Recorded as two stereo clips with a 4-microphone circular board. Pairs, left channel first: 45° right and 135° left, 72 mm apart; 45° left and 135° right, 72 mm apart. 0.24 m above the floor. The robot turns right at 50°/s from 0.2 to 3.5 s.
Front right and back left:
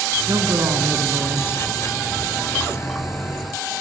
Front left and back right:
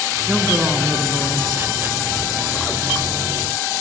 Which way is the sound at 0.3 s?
140° left.